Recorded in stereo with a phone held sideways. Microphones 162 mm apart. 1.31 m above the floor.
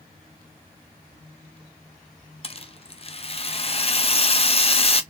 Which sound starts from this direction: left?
A rattle, at 2.4 s.